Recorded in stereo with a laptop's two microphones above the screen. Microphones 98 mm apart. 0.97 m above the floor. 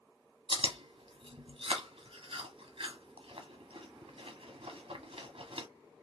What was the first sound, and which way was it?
Chewing, 75° right (ahead or behind).